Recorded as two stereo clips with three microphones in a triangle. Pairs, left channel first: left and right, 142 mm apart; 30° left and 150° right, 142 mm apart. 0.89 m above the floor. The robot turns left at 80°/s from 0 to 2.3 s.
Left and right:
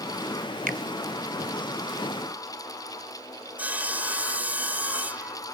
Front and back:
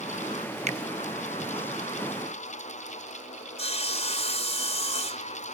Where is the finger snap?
110° right; by 0.8 s 120° right.